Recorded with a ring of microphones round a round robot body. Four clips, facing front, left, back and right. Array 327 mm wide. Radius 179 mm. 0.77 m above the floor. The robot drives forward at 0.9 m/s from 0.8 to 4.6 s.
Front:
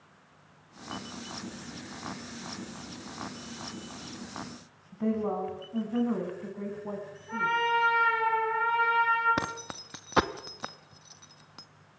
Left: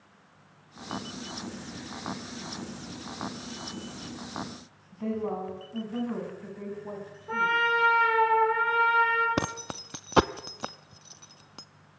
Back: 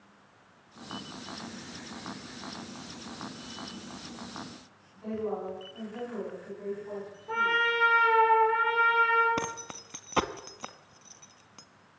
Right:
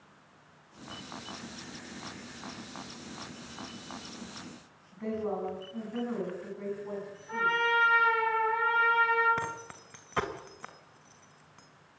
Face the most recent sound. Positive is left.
turn(degrees=85)